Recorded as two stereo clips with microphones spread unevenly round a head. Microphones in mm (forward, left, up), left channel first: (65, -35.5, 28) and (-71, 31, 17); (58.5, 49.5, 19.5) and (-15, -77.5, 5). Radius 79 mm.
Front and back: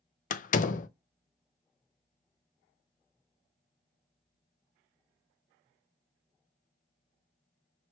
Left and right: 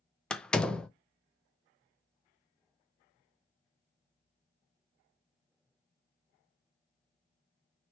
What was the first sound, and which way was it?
A door slam, 25° right.